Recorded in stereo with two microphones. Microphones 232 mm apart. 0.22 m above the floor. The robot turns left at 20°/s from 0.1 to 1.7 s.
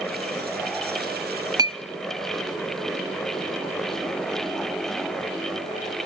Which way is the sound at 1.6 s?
15° right (ahead or behind).